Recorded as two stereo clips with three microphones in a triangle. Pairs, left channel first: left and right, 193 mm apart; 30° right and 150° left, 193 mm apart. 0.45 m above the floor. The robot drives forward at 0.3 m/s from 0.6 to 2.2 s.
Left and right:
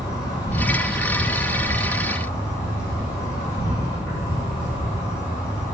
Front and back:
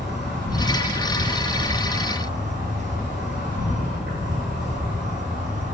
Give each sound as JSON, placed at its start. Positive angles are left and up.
{"t": 0.0, "sound": "an insect", "azimuth_deg": 160, "distance_m": 0.9}